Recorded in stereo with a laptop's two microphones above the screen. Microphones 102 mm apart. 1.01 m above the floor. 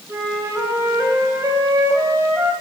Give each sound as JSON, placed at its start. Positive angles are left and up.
{"t": 0.1, "sound": "a flute", "side_deg": -30, "distance_m": 1.6}